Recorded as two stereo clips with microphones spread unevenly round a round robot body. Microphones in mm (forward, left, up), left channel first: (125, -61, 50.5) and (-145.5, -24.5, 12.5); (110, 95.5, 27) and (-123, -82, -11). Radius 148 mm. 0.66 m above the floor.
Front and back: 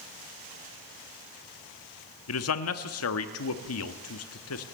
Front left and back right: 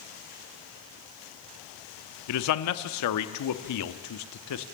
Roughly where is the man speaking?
Ahead.